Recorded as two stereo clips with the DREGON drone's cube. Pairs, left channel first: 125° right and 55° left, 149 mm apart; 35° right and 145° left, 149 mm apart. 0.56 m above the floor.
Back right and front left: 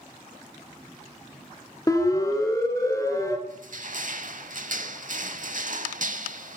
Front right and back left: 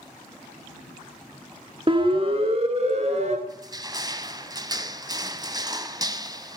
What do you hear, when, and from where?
1.9 s a siren: straight behind, 2.5 m; by 3.4 s 170° left, 3 m
3.5 s crushing: 80° left, 0.9 m